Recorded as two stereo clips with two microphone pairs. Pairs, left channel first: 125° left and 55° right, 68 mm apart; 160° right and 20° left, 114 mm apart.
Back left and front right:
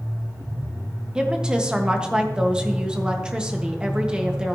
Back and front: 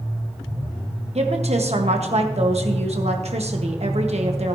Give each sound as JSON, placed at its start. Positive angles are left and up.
{"t": 1.1, "sound": "a woman speaking", "azimuth_deg": 25, "distance_m": 1.4}